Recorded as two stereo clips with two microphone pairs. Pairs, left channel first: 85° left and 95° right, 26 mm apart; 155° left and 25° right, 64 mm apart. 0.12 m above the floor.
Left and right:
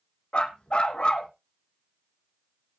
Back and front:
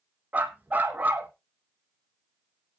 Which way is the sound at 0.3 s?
40° left.